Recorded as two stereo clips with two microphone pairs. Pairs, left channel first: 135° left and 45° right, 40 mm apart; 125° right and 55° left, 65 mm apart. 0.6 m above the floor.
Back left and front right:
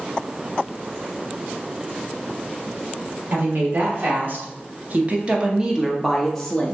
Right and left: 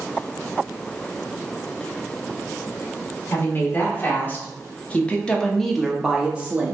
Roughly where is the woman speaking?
Right.